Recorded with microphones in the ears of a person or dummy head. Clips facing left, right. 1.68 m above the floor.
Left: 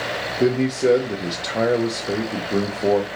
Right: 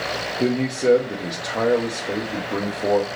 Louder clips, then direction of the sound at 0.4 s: Left 2 dB; 10° left (ahead or behind).